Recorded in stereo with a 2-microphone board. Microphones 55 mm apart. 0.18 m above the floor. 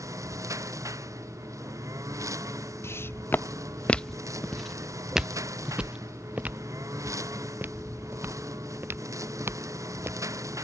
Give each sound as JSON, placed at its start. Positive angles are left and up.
{"t": 0.0, "sound": "a lawn mower", "side_deg": -75}
{"t": 2.8, "sound": "footsteps", "side_deg": 50}